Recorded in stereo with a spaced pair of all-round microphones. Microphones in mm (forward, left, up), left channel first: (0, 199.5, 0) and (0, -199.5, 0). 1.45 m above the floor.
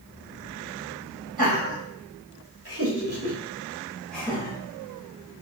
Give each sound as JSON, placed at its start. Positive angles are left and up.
{"t": 1.4, "sound": "laughter", "side_deg": -70, "distance_m": 1.6}